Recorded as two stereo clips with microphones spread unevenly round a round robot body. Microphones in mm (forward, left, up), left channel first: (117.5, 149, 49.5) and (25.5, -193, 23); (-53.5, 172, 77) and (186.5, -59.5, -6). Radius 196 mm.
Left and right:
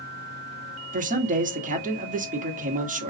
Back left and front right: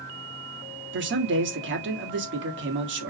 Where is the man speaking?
50° right, 1.4 m.